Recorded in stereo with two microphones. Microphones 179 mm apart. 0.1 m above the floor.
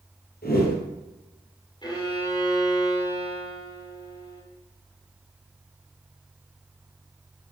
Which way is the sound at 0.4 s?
60° left (ahead or behind).